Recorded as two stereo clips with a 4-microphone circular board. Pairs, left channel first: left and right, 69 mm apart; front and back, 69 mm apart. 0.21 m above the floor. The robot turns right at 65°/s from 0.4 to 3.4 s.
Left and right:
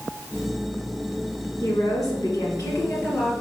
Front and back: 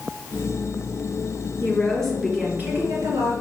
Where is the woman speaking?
55° left, 4 m; by 3.3 s 165° left, 4 m.